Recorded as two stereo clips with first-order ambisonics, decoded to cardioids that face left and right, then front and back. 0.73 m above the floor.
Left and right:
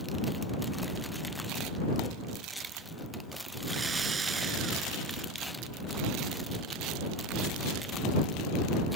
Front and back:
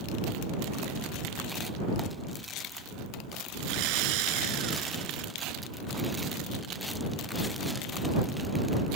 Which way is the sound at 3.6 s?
160° right.